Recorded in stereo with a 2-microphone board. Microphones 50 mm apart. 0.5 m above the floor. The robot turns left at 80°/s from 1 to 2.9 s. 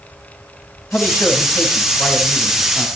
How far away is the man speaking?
About 3.5 m.